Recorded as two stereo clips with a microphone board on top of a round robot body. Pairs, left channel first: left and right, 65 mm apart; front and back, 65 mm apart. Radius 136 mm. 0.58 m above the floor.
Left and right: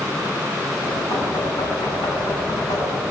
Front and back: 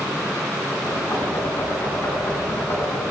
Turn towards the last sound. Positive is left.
turn(degrees=55)